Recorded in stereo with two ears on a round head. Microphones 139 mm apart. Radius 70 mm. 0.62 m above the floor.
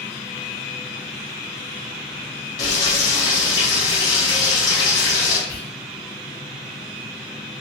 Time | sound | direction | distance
2.6 | frying | 25° left (ahead or behind) | 1.1 m
5.5 | whispering | 40° left (ahead or behind) | 0.7 m